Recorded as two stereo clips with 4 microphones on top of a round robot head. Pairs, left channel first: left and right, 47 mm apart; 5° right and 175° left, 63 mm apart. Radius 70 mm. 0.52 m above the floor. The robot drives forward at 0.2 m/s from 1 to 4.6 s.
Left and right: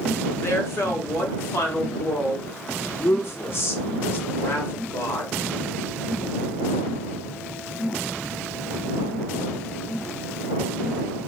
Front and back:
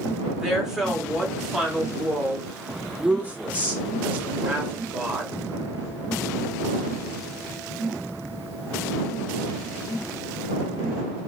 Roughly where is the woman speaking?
Left.